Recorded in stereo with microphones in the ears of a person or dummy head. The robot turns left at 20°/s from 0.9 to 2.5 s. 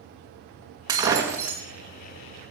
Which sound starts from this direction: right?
Breaking glass, at 0.9 s.